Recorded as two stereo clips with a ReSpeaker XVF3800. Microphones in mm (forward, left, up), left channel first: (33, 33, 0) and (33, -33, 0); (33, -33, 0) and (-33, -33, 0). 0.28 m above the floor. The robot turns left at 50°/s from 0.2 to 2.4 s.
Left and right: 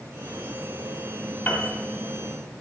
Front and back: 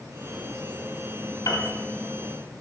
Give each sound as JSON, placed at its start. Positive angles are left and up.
{"t": 1.5, "sound": "a piano", "azimuth_deg": 20, "distance_m": 1.8}